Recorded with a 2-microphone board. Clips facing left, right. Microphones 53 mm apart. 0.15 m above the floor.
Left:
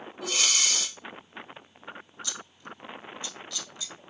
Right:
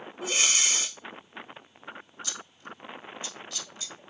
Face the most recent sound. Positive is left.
turn(degrees=-30)  # may be behind; listen again after turning